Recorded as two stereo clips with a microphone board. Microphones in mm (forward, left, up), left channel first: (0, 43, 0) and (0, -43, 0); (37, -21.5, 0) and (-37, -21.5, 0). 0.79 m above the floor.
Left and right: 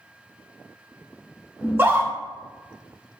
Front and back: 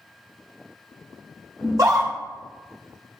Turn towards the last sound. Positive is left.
turn(degrees=-150)